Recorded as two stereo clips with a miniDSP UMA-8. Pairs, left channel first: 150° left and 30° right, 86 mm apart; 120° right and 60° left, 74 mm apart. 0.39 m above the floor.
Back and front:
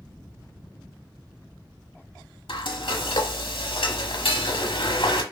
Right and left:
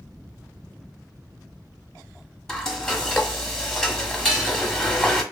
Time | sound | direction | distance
2.5 | frying | 160° left | 0.7 m